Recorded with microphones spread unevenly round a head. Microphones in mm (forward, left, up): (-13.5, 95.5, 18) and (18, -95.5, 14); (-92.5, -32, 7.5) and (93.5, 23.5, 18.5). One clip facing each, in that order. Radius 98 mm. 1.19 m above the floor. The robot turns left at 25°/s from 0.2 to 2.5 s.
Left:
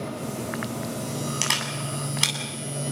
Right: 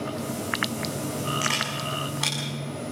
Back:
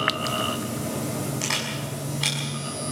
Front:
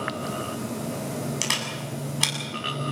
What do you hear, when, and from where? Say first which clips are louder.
1.4 s a camera shutter: right 1 dB, back 2 dB; 65° left, 7 m; by 2.3 s 45° left, 7 m